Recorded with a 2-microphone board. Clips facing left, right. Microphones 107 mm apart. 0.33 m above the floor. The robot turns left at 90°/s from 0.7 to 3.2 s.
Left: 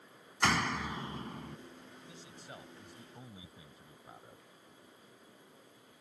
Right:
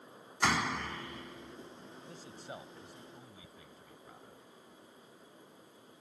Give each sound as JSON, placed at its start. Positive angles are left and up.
{"t": 0.4, "sound": "a door slam", "azimuth_deg": -175}
{"t": 2.1, "sound": "a man speaking", "azimuth_deg": -105}